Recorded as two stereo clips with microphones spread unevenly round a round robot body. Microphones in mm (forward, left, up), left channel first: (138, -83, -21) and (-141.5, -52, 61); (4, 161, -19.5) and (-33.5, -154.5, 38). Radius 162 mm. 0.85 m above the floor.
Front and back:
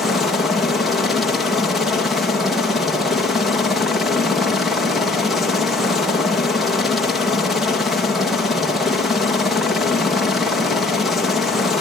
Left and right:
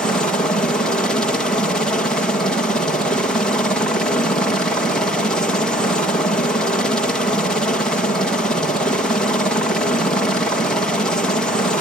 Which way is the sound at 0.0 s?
35° left.